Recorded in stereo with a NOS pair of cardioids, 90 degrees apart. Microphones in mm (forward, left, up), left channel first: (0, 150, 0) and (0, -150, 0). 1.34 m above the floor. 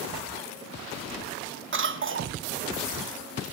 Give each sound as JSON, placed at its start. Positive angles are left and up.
{"t": 1.7, "sound": "a cough", "azimuth_deg": -40, "distance_m": 3.0}